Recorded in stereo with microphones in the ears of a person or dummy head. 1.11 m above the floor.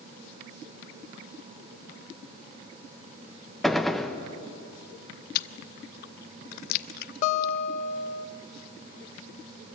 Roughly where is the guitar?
Left.